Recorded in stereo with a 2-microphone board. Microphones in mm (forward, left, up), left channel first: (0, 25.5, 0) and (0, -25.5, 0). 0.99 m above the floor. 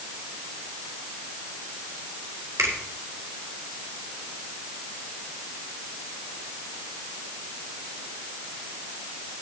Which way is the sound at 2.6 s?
75° right (ahead or behind).